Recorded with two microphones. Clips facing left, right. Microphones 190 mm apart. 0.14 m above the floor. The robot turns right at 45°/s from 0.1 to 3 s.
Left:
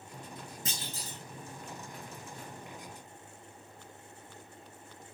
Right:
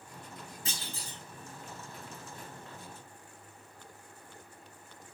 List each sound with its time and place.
0.7 s a clunk: 40° left (ahead or behind), 1.6 m; by 1.2 s 45° left (ahead or behind), 1.6 m